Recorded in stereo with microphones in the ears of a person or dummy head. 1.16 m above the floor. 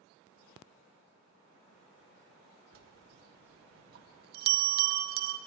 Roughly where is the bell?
Right.